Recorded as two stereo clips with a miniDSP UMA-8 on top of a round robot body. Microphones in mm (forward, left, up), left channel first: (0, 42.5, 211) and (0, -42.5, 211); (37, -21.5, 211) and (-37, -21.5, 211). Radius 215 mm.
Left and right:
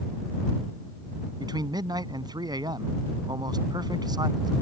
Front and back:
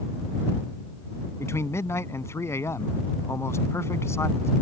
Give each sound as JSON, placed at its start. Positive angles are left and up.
{"t": 1.4, "sound": "a man speaking", "azimuth_deg": -55}